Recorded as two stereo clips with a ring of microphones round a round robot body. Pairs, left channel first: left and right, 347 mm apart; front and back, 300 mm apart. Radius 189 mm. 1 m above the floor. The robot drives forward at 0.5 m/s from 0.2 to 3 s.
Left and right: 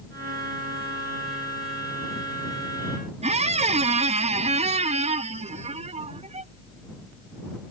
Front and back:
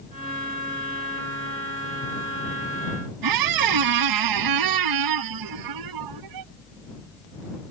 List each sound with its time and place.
3.2 s a squeak: 165° right